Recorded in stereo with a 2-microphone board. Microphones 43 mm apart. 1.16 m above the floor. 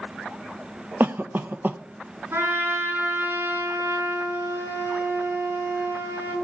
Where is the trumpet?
70° right (ahead or behind), 9.5 m.